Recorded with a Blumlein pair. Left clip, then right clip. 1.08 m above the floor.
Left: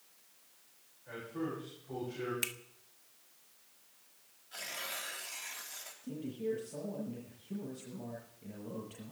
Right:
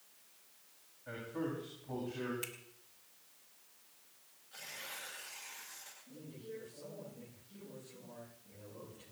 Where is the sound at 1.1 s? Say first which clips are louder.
Left 1 dB; 20° right, 8.5 m.